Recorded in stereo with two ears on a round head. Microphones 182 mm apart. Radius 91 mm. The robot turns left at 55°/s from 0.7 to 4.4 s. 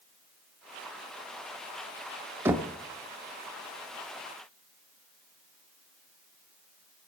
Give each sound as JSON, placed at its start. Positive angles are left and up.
{"t": 2.5, "sound": "knocking", "side_deg": -10, "distance_m": 0.6}